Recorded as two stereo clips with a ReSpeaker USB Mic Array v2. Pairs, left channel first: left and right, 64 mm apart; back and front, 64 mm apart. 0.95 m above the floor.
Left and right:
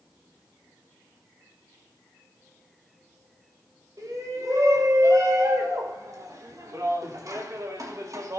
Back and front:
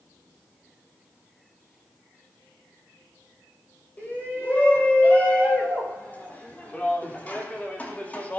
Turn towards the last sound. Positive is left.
turn(degrees=-115)